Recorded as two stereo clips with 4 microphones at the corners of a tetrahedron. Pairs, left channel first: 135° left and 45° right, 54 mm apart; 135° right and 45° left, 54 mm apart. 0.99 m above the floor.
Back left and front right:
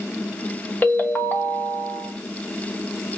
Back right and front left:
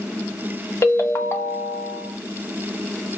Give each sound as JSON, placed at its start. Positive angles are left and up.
{"t": 0.8, "sound": "a ringtone", "azimuth_deg": -170, "distance_m": 0.6}